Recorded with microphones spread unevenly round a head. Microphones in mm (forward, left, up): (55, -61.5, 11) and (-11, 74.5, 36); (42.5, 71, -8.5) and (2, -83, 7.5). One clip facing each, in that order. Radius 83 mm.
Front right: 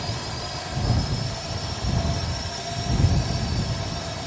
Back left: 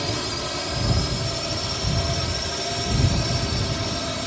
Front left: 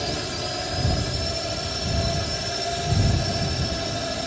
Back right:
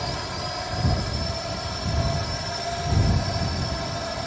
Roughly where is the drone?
Behind left.